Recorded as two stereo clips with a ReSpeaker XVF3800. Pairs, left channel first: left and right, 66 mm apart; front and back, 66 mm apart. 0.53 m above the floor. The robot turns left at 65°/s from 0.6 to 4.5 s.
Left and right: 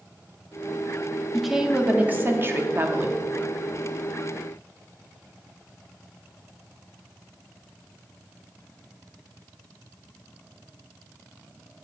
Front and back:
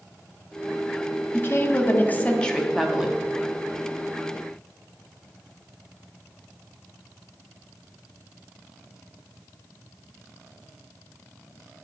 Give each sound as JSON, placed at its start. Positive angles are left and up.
{"t": 1.3, "sound": "a woman speaking", "azimuth_deg": 5, "distance_m": 0.8}